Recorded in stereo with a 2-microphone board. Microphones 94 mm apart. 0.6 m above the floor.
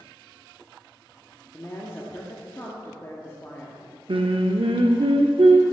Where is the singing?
70° right (ahead or behind), 0.6 m.